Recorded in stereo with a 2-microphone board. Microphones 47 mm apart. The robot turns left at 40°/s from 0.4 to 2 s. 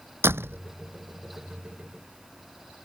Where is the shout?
I don't hear a shout.